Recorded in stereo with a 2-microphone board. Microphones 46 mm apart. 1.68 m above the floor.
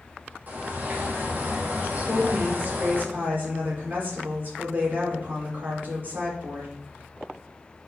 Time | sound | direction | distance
0.5 | a bird | 40° right (ahead or behind) | 2.5 m
2.0 | a woman speaking | 45° right (ahead or behind) | 5 m